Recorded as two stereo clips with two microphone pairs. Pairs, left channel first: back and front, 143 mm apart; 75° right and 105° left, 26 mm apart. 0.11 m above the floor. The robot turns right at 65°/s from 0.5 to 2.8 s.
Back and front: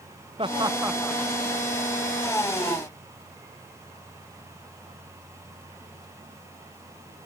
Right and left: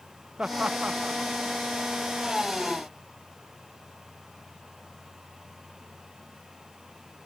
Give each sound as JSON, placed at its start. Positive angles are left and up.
{"t": 0.4, "sound": "laughter", "azimuth_deg": 55}